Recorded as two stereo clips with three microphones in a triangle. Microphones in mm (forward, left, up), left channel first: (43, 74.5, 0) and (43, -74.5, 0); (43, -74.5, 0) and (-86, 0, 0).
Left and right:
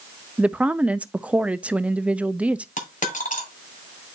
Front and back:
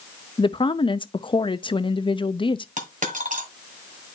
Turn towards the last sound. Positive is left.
turn(degrees=120)